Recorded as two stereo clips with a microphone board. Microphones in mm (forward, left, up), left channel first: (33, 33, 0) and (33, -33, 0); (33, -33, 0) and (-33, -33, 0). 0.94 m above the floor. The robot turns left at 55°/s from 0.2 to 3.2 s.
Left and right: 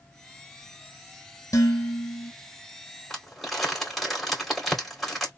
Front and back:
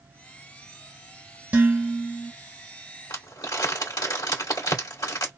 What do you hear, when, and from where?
1.5 s dishes clattering: 115° left, 1.9 m; by 2.3 s 70° left, 1.9 m
3.1 s crumpling: 5° left, 2.5 m; by 5.3 s straight ahead, 2.5 m